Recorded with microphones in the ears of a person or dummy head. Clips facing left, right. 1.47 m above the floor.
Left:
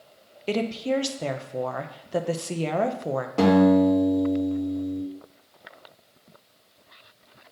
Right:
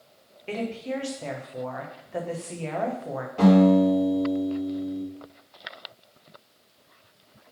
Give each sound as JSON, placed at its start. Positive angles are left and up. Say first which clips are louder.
{"t": 0.5, "sound": "a woman speaking", "louder": "left 5 dB", "side_deg": 60, "distance_m": 0.9}
{"t": 3.4, "sound": "a guitar", "louder": "even", "side_deg": 70, "distance_m": 3.0}